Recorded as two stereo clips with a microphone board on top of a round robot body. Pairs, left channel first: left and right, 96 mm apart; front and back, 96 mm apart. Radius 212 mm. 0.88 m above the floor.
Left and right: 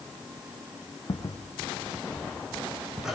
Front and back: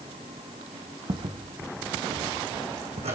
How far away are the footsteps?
About 3 m.